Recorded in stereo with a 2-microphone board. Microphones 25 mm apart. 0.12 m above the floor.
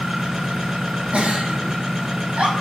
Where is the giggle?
60° right (ahead or behind), 3.5 m.